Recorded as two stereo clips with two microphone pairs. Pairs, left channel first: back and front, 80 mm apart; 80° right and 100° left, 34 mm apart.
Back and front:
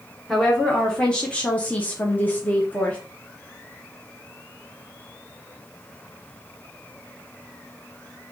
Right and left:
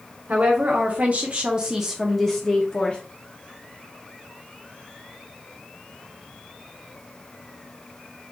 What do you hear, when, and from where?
0.3 s a woman speaking: 95° left, 1.0 m; by 3.0 s 115° right, 0.8 m